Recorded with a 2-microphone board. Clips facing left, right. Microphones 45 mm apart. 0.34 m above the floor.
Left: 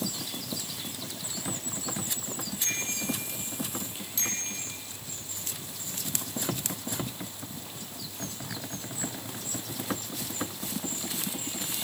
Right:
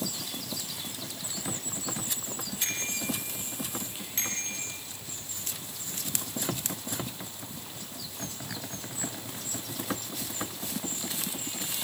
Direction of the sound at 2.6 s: 40° right (ahead or behind).